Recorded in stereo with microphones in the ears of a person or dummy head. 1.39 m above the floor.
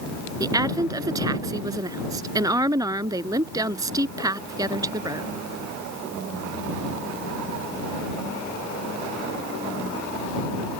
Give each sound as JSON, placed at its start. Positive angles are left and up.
{"t": 0.4, "sound": "a woman speaking", "side_deg": -15}